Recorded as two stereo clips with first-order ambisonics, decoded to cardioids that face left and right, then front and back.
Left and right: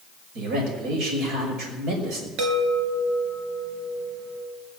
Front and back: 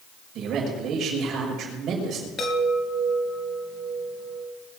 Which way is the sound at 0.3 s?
125° right.